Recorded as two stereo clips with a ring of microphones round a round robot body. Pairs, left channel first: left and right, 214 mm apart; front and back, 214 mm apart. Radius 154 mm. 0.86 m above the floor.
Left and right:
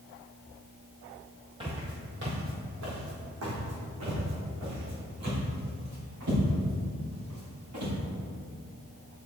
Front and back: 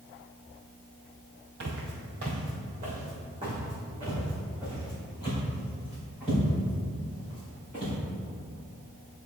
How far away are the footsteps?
About 1.2 m.